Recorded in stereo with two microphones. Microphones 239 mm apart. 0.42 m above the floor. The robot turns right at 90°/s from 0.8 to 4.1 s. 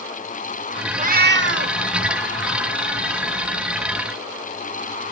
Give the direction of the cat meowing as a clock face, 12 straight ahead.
5 o'clock.